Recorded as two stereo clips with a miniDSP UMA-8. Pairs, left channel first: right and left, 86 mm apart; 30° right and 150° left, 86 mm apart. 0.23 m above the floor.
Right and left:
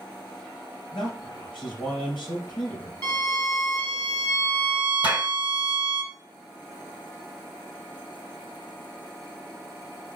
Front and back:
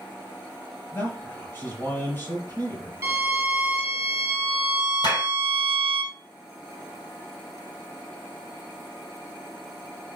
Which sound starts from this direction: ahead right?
A clap, at 5.0 s.